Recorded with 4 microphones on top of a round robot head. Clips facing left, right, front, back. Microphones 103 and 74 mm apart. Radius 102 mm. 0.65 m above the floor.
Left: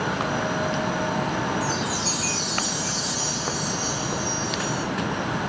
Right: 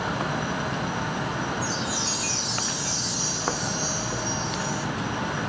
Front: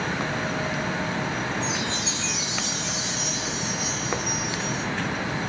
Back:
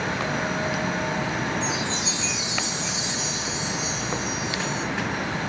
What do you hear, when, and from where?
1.6 s a chime: 115° left, 6 m